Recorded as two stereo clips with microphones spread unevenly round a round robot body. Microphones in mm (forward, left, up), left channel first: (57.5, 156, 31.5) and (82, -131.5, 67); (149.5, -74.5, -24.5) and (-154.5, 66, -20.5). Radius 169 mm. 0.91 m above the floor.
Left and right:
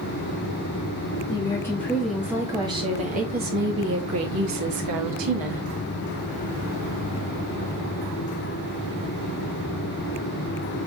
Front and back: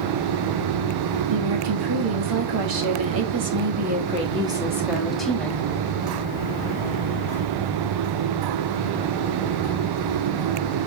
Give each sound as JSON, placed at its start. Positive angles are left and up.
{"t": 1.3, "sound": "a woman speaking", "azimuth_deg": 170, "distance_m": 1.9}